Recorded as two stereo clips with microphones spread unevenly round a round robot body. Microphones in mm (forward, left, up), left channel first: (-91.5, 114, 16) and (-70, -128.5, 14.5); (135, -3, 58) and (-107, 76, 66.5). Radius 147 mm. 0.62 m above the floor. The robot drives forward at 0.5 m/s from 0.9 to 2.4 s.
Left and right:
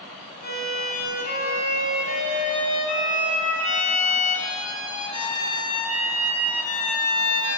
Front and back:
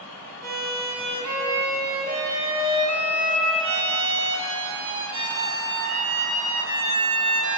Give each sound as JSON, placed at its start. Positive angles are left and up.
{"t": 0.4, "sound": "a violin", "azimuth_deg": 145, "distance_m": 1.8}